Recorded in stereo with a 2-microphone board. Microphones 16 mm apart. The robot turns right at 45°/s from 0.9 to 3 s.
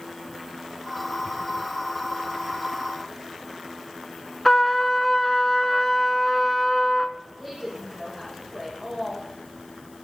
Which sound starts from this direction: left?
A trumpet, at 4.5 s.